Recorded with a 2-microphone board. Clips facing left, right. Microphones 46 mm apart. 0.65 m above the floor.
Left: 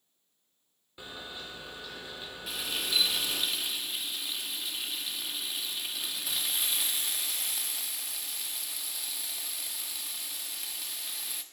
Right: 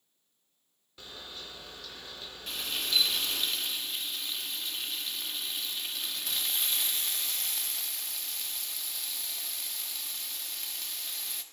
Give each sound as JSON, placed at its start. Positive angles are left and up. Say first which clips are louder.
{"t": 1.0, "sound": "a camera shutter", "louder": "left 3 dB", "side_deg": 15, "distance_m": 2.5}
{"t": 2.5, "sound": "frying", "louder": "even", "side_deg": 5, "distance_m": 1.1}